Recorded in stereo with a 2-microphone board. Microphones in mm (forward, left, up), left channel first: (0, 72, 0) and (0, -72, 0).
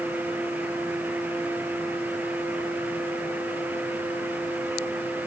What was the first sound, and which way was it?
Only background noise.